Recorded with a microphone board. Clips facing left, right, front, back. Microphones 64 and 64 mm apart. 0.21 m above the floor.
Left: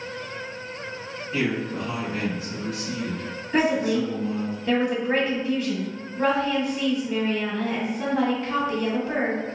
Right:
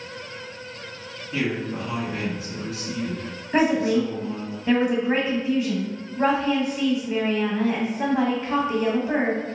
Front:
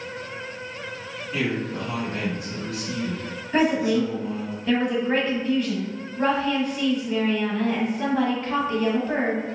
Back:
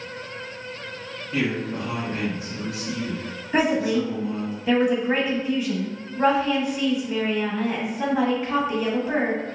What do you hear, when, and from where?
1.3 s a man speaking: 140° right, 1.8 m
3.5 s a woman speaking: 115° right, 1.1 m